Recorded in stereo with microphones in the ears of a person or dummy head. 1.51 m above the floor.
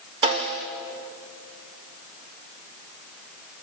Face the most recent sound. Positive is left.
turn(degrees=-25)  # may be behind; listen again after turning